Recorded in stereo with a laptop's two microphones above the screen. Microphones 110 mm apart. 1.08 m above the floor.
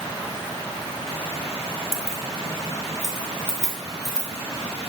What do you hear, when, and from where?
1.9 s keys jangling: 60° left (ahead or behind), 0.7 m; by 4.9 s 75° left (ahead or behind), 3 m